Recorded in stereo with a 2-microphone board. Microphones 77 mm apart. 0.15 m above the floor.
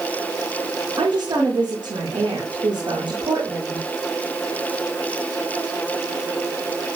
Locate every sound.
1.0 s a woman speaking: 70° right (ahead or behind), 6.5 m